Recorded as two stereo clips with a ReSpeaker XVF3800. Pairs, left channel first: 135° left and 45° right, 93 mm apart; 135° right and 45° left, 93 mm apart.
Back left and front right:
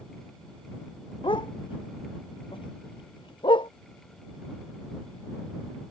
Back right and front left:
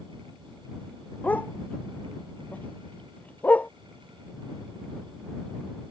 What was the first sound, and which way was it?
A dog barking, 155° left.